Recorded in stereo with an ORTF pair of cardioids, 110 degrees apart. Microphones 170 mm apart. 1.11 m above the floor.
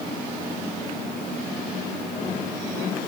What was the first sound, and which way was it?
Only background noise.